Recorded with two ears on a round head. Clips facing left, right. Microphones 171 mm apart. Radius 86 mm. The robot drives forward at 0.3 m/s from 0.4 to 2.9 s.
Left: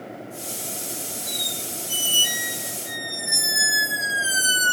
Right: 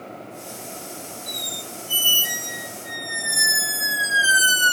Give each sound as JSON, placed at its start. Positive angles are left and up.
{"t": 1.3, "sound": "a squeak", "side_deg": -5, "distance_m": 1.7}